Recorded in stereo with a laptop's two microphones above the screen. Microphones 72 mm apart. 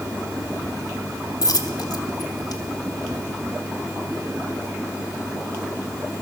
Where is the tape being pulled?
I don't hear tape being pulled.